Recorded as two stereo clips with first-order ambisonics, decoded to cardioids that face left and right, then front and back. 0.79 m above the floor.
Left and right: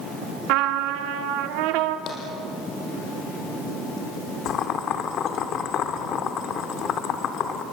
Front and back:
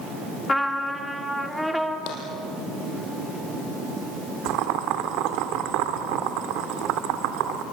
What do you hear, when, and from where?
0.5 s a trumpet: 90° right, 1.5 m
2.1 s tapping: 35° left, 5.5 m
4.5 s boiling: 145° left, 1.5 m